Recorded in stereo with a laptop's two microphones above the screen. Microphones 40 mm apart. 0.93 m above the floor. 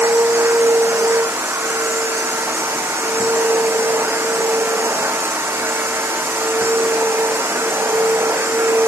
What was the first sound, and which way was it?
A machine running, 85° right.